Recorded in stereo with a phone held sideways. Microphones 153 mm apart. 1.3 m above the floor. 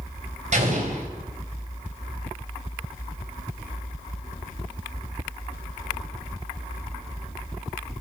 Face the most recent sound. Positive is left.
turn(degrees=-50)  # may be behind; listen again after turning